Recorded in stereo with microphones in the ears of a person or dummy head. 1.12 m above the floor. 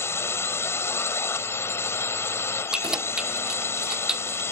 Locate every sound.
0.0 s a drone: 15° left (ahead or behind)
2.7 s keys jangling: 5° right (ahead or behind)